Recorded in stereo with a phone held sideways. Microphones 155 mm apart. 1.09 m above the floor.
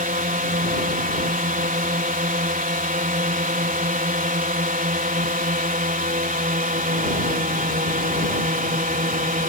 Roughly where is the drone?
Right.